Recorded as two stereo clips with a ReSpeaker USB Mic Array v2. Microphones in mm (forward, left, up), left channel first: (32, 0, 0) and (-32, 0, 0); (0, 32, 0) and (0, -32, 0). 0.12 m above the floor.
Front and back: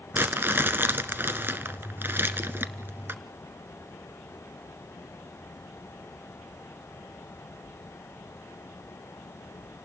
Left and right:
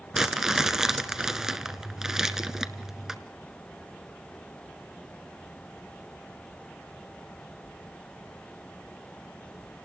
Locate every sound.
0.1 s crumpling: 165° right, 1.2 m